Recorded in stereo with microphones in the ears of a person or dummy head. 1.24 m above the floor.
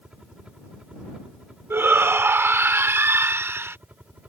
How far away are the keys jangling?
No keys jangling in this recording.